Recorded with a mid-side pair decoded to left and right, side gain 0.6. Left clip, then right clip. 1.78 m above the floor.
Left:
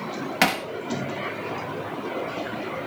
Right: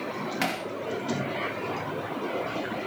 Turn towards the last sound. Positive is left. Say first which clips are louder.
# left 9 dB
turn(degrees=45)